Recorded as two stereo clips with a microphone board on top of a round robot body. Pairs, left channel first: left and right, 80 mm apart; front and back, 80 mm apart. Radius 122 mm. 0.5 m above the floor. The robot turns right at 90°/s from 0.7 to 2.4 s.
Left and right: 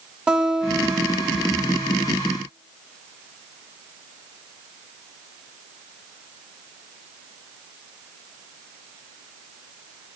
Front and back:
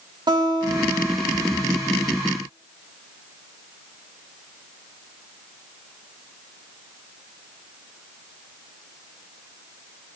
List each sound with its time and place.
0.3 s a guitar: 165° right, 2.5 m; by 2.2 s 30° right, 2.5 m